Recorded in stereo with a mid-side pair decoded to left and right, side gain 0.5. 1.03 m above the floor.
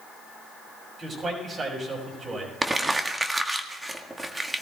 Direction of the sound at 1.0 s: 35° right.